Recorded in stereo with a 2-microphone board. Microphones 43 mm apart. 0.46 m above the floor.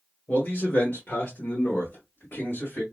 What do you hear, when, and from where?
0.3 s a man speaking: 40° left (ahead or behind), 1.1 m; by 2.8 s 50° left (ahead or behind), 2 m